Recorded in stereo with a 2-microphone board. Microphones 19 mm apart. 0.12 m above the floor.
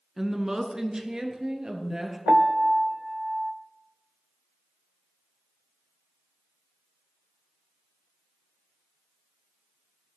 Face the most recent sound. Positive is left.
turn(degrees=-40)  # may be behind; listen again after turning